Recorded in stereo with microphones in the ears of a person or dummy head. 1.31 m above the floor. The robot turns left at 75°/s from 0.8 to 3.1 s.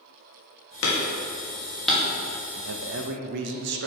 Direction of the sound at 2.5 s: 80° right.